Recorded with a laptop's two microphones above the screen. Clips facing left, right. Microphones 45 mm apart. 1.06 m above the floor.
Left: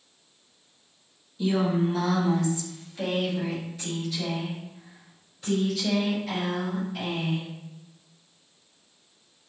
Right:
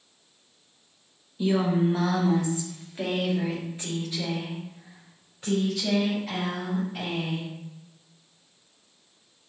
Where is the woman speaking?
15° right (ahead or behind), 0.8 m; by 7.5 s 30° right (ahead or behind), 4.5 m.